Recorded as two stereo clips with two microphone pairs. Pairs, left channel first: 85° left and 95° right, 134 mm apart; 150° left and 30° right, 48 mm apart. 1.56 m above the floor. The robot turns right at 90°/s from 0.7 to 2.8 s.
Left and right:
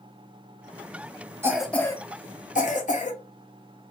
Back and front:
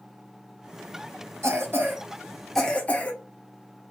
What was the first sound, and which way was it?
A cough, 25° right.